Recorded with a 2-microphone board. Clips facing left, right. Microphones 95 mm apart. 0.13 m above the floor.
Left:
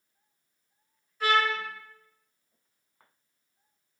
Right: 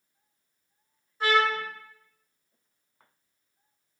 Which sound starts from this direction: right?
A trumpet, at 1.2 s.